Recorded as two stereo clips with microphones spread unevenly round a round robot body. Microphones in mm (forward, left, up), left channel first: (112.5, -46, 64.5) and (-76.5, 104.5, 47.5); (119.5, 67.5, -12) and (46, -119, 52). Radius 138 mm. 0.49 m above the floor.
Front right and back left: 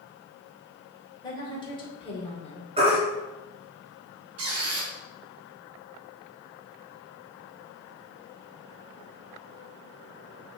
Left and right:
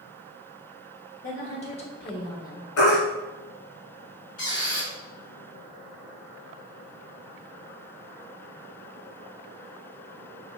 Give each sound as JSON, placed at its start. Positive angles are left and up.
{"t": 1.2, "sound": "a woman speaking", "azimuth_deg": 35, "distance_m": 2.5}
{"t": 2.8, "sound": "a baby crying", "azimuth_deg": 75, "distance_m": 2.5}
{"t": 4.4, "sound": "a squeak", "azimuth_deg": 125, "distance_m": 2.5}